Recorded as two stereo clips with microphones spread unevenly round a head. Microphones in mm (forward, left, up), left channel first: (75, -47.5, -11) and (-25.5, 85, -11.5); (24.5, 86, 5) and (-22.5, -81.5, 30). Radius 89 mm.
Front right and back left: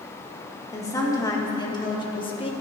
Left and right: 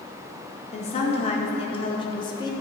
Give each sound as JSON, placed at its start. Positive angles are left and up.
{"t": 0.7, "sound": "a woman speaking", "azimuth_deg": 20, "distance_m": 2.5}